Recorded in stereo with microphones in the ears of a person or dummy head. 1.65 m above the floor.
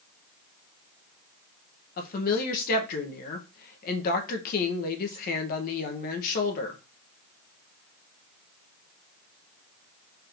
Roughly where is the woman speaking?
Left.